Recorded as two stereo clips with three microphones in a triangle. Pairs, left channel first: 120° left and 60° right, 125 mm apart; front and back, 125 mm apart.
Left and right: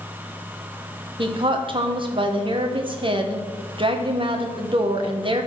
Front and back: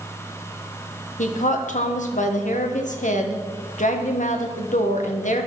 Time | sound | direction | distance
1.2 | a woman speaking | 10° right | 1.2 m